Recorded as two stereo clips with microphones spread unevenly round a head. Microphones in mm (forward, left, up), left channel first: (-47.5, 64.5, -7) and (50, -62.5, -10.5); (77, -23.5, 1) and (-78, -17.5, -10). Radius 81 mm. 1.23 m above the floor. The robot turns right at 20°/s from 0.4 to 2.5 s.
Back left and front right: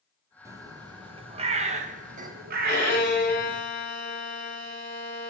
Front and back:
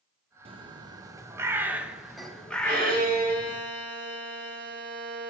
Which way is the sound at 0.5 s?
125° right.